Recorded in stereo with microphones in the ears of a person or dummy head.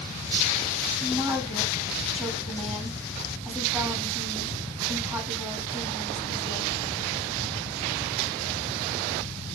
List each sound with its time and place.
1.0 s a woman speaking: centre (ahead or behind), 2.5 m